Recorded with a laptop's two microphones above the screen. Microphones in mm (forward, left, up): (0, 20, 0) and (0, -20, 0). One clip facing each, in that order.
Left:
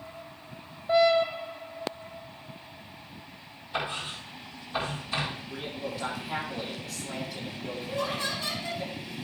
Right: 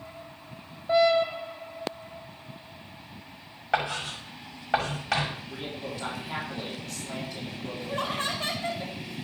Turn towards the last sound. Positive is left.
turn(degrees=-40)  # may be behind; listen again after turning